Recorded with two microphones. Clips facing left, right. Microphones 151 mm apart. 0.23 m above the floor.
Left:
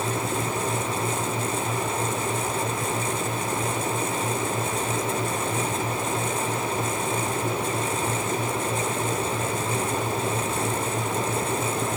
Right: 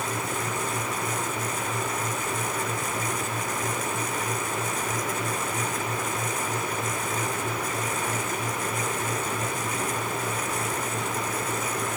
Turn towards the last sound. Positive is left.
No sound to turn to.